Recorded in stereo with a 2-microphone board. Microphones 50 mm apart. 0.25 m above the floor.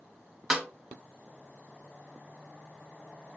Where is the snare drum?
10° right (ahead or behind), 0.7 m.